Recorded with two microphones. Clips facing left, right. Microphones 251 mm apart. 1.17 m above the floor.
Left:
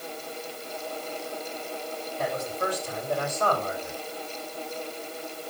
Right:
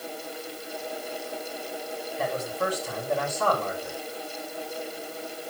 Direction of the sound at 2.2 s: 70° right (ahead or behind).